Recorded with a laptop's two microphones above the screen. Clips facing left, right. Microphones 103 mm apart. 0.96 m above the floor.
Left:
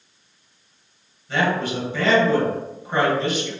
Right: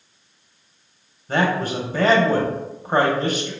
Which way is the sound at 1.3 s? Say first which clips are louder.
Right 1 dB; 40° right (ahead or behind).